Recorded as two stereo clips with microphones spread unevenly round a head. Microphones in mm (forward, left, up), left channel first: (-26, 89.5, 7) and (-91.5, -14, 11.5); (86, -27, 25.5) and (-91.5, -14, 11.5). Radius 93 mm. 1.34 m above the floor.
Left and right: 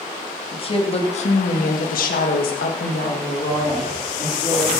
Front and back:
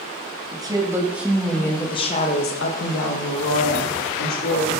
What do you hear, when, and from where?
0.5 s a woman speaking: 105° left, 2.5 m; by 4.8 s 15° right, 3.5 m